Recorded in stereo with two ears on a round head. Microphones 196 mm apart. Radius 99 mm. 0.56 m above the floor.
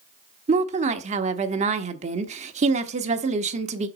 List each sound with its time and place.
0.5 s a woman speaking: 35° right (ahead or behind), 1.0 m